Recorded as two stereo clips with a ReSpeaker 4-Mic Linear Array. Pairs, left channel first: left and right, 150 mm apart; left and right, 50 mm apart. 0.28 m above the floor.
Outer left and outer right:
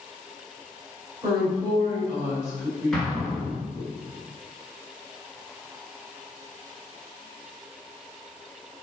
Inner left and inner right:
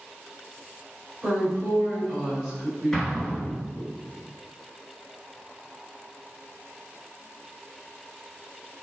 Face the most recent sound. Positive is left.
turn(degrees=5)  # may be behind; listen again after turning